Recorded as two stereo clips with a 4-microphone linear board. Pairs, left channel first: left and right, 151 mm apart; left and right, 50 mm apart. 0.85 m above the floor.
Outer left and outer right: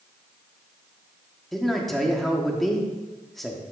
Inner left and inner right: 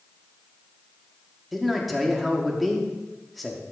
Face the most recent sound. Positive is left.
turn(degrees=0)  # may be behind; listen again after turning